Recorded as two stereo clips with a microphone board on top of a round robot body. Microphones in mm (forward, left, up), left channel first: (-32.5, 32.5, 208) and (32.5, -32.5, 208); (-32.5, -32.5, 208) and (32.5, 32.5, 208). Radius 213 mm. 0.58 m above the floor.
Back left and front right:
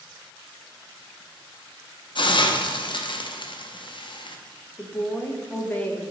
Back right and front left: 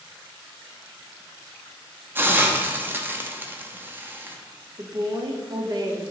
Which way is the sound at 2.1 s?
110° left.